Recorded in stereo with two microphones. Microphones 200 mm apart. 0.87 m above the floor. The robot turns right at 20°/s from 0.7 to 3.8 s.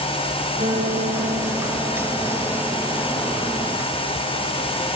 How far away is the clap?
I don't hear a clap.